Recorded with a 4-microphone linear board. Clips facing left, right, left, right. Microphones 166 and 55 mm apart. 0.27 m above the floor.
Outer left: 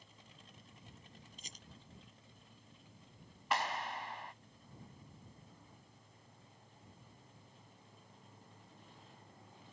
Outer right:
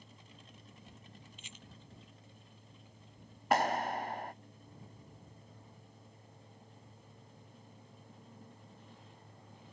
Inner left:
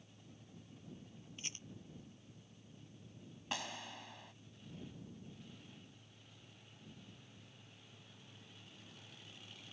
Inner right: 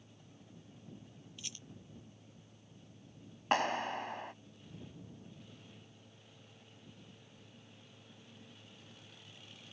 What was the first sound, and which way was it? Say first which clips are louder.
A rattle: outer right 3 dB, inner left 2 dB; 40° left (ahead or behind).